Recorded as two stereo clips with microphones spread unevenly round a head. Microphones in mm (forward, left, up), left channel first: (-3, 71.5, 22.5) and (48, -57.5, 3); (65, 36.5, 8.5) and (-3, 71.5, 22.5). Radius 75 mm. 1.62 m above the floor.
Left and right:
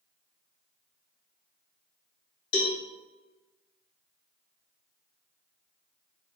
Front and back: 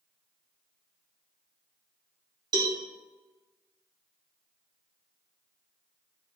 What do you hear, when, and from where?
2.5 s a cowbell: 125° left, 2.5 m